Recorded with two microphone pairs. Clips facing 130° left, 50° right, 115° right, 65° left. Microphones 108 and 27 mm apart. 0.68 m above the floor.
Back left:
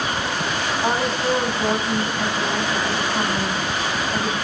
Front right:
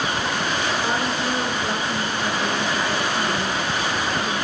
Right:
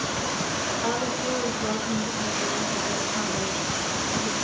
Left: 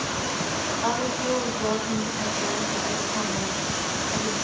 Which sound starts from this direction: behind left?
A woman speaking, at 0.8 s.